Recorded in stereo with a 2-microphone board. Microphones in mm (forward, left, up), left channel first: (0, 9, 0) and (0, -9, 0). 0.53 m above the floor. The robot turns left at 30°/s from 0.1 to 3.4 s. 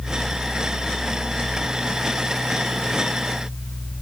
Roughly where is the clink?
I don't hear a clink.